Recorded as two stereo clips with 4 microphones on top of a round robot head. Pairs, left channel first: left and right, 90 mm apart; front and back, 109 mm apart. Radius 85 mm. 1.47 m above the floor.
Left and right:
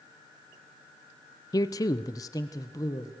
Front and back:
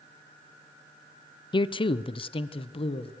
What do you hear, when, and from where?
1.5 s a man speaking: 40° left, 0.8 m; by 3.1 s 30° left, 1.8 m